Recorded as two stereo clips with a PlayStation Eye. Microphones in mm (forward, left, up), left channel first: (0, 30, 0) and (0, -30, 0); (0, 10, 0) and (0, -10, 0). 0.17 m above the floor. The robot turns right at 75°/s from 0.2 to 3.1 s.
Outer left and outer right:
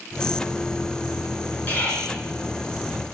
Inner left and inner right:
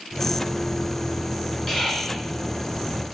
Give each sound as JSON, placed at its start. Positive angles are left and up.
{"t": 1.7, "sound": "whispering", "side_deg": 30, "distance_m": 1.2}